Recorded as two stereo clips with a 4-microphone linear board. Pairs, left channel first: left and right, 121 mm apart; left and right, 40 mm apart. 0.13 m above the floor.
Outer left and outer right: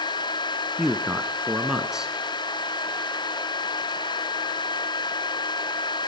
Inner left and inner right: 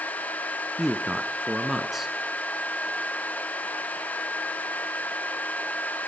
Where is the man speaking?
5° right (ahead or behind), 1.1 m.